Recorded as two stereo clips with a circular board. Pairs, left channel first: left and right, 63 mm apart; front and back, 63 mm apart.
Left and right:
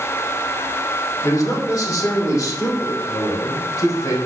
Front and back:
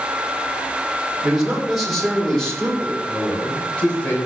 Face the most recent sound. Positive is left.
turn(degrees=70)